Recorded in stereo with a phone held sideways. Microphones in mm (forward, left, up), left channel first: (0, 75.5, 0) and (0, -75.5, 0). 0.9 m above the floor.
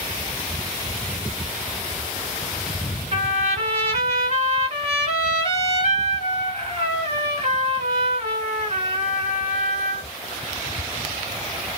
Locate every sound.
3.1 s a trumpet: 50° right (ahead or behind), 1.7 m